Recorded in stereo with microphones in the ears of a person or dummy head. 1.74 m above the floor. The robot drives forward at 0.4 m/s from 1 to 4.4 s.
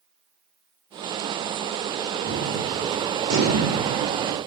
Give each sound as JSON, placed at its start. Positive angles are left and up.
{"t": 2.2, "sound": "a gunshot", "side_deg": -85, "distance_m": 9.0}